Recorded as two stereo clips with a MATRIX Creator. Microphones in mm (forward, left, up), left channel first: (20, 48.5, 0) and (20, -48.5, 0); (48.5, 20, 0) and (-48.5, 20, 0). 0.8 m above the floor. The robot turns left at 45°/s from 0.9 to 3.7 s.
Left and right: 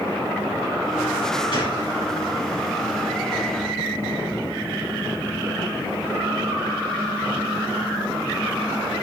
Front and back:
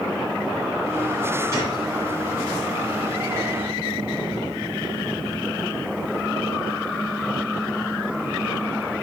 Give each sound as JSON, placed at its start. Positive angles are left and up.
{"t": 1.5, "sound": "a gunshot", "azimuth_deg": 120, "distance_m": 5.5}